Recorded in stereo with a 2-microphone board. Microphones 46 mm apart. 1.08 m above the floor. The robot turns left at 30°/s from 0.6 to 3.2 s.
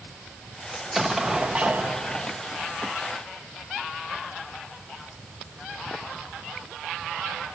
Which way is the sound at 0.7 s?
Straight ahead.